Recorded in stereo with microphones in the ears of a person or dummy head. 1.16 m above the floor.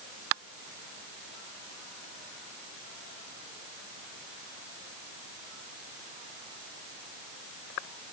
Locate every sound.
Only background noise.